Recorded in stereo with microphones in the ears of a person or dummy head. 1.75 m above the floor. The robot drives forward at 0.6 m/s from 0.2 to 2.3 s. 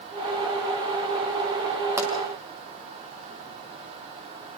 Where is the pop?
15° right (ahead or behind), 2.5 m.